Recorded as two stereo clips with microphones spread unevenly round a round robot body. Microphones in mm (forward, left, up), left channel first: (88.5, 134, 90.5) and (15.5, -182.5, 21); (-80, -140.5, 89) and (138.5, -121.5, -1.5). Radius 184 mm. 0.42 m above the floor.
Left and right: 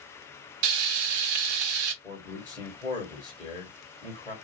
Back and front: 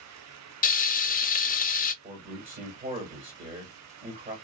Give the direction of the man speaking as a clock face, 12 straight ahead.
12 o'clock.